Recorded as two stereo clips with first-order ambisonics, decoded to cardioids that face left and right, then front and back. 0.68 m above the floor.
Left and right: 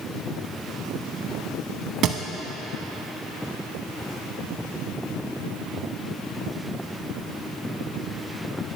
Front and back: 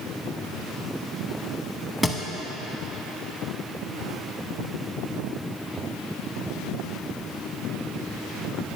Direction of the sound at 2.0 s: 80° right.